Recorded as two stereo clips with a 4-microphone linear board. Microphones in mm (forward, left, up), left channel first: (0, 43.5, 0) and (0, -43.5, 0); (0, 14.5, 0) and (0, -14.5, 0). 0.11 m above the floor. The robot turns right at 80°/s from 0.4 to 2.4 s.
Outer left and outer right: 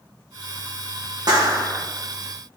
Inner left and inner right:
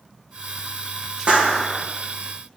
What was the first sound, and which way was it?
A clap, 55° right.